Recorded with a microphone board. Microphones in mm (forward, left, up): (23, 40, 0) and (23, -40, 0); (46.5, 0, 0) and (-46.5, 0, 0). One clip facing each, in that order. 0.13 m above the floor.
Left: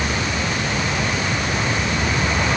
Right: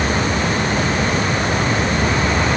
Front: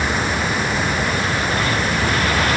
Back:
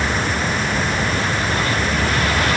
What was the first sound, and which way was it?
Only background noise.